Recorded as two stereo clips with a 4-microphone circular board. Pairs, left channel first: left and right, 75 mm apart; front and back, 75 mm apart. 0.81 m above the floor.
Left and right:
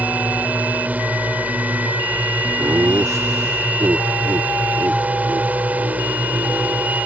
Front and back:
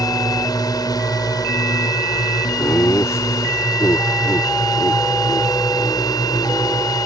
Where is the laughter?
45° right.